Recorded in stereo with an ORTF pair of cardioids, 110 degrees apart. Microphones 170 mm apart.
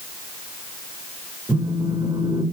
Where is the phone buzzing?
15° right, 5.5 m.